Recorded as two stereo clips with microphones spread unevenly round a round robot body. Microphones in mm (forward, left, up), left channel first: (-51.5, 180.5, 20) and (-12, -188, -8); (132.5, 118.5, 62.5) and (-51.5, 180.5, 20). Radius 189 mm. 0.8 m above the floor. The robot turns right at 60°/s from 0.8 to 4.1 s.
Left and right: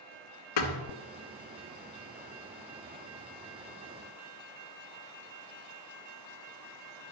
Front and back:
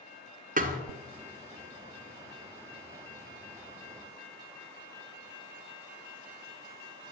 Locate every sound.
0.6 s a thud: 110° left, 1.9 m